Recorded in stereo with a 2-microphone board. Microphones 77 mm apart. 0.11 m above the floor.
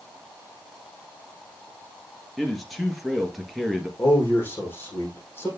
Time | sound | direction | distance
2.4 | a man speaking | centre (ahead or behind) | 2 m
4.0 | a man speaking | 30° left (ahead or behind) | 6 m